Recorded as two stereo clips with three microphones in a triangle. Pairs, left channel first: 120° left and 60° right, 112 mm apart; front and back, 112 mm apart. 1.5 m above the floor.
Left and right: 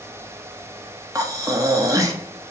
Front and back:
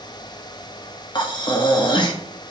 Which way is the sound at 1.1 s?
15° right.